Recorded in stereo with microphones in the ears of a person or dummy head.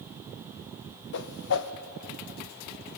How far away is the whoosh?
About 0.9 m.